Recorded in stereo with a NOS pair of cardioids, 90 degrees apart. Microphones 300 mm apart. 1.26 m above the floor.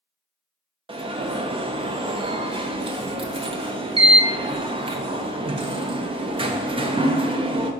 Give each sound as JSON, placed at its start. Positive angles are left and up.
{"t": 0.9, "sound": "an alarm", "azimuth_deg": -20, "distance_m": 0.6}